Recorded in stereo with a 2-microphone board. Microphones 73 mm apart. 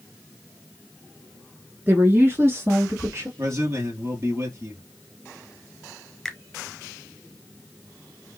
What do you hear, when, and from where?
1.9 s a woman speaking: 25° right (ahead or behind), 1.8 m; by 3.3 s 40° right (ahead or behind), 2 m
3.4 s a man speaking: 40° right (ahead or behind), 3.5 m
6.2 s a finger snap: 5° left (ahead or behind), 1.2 m